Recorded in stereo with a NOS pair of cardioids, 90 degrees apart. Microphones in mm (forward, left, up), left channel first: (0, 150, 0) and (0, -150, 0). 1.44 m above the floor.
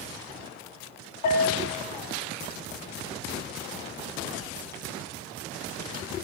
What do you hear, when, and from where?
1.2 s a bell: 65° left, 2.5 m